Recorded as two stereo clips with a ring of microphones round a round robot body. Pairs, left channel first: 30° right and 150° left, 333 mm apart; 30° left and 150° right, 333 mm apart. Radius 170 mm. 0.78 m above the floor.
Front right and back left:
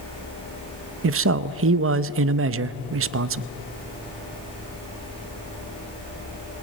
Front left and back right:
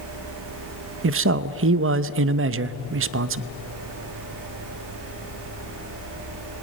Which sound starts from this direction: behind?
A man speaking, at 1.0 s.